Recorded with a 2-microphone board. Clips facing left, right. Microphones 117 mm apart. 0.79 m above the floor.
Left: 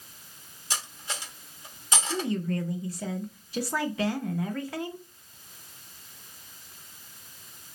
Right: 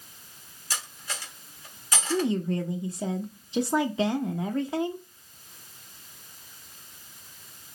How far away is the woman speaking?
About 0.6 m.